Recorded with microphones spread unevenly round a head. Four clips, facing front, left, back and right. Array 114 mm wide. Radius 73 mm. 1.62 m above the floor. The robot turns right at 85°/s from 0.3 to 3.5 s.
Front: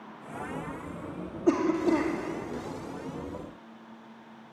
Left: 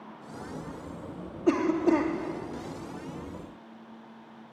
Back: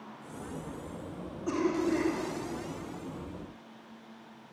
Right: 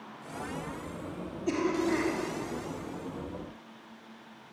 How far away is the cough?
About 3.5 m.